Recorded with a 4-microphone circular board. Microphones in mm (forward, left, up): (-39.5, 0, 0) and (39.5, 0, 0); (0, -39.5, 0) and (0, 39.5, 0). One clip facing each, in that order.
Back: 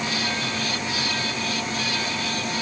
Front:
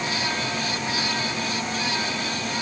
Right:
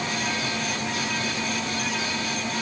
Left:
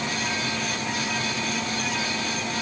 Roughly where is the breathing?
No breathing in this recording.